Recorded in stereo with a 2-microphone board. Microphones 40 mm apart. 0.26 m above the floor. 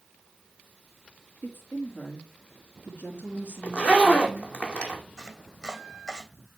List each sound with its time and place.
1.4 s a woman speaking: 55° left (ahead or behind), 4 m
3.6 s a zipper: 30° left (ahead or behind), 2 m
5.2 s chopping: 10° left (ahead or behind), 2 m